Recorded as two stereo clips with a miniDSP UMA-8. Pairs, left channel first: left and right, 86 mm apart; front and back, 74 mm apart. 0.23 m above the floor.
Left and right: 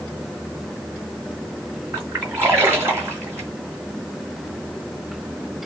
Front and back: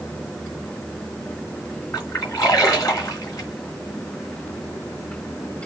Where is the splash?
35° right, 2 m.